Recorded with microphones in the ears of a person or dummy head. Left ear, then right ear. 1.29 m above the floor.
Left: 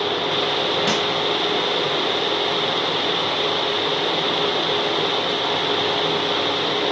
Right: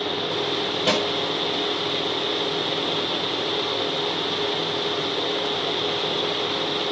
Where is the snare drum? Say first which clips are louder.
Right 4 dB; 20° right (ahead or behind), 2.5 m.